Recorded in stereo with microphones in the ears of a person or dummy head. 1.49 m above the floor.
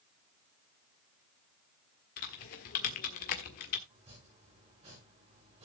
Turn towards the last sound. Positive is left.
turn(degrees=-30)  # may be behind; listen again after turning